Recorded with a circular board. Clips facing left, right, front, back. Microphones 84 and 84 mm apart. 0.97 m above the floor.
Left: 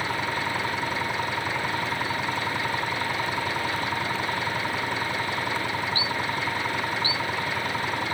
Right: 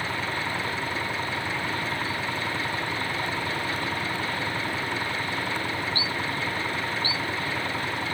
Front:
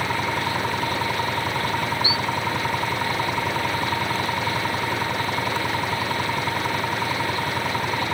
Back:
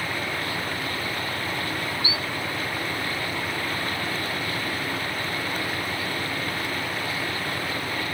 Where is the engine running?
15° left.